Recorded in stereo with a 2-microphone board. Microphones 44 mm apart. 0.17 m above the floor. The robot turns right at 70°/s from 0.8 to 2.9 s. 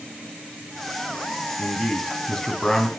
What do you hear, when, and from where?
1.6 s a man speaking: 20° left (ahead or behind), 1.2 m; by 2.9 s 10° left (ahead or behind), 1.2 m